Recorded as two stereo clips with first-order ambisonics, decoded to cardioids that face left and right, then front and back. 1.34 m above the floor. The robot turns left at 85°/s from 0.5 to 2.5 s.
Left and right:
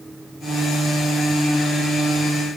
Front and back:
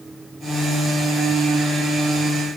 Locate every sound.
Only background noise.